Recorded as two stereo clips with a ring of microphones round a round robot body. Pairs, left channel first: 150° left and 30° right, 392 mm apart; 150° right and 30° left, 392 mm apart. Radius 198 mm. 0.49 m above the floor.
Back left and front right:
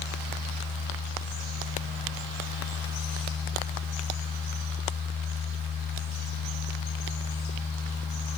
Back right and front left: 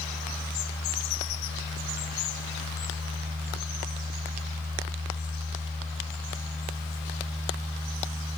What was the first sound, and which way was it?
Only background noise.